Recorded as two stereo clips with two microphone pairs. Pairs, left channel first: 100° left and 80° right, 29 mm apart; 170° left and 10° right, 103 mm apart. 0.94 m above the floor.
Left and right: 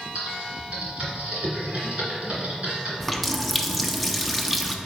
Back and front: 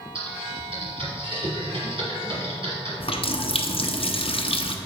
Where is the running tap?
165° right, 0.5 m.